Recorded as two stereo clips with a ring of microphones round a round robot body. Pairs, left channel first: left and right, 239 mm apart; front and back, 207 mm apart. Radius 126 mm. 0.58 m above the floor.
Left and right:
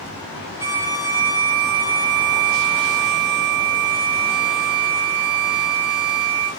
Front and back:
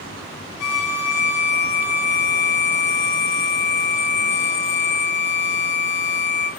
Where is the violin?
10° right, 4.5 m.